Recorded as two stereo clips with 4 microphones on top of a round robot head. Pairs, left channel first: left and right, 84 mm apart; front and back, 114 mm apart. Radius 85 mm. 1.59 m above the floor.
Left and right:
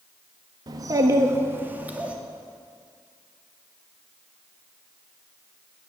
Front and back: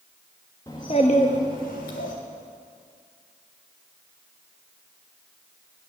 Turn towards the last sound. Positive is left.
turn(degrees=-15)